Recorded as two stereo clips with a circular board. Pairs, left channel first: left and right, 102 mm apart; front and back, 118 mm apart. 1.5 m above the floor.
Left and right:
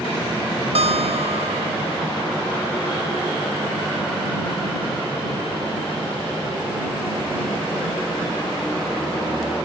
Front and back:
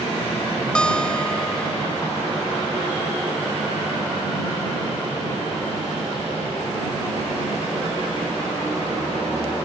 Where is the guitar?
80° right.